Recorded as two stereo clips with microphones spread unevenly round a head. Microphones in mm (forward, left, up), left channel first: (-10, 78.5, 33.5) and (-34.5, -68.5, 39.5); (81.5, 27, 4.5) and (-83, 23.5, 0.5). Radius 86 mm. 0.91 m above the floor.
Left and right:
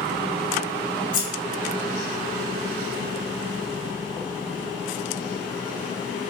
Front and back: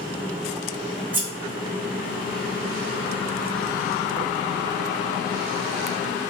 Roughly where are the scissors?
Left.